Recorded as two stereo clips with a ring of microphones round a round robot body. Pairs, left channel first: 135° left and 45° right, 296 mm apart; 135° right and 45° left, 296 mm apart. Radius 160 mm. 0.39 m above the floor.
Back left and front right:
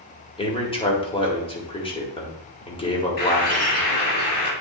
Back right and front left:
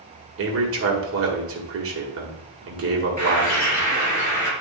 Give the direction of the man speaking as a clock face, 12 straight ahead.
10 o'clock.